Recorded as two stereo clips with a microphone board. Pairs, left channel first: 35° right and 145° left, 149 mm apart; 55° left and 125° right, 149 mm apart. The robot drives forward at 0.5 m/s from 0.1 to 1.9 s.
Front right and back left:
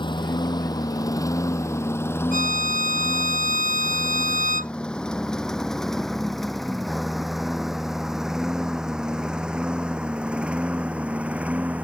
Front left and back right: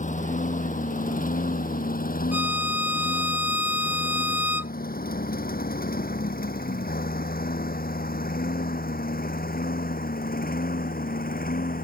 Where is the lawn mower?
25° left; by 11.8 s 65° left.